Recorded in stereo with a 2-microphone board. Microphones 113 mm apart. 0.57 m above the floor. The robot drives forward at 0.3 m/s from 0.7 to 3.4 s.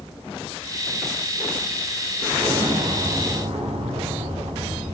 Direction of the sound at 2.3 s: 60° right (ahead or behind).